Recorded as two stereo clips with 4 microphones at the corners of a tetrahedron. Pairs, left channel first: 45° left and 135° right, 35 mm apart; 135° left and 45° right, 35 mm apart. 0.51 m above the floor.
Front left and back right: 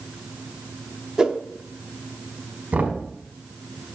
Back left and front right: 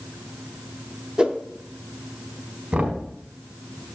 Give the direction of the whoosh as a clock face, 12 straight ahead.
3 o'clock.